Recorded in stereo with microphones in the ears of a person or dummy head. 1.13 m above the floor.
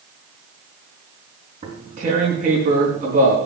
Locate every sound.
1.6 s tearing paper: 35° right (ahead or behind), 4.5 m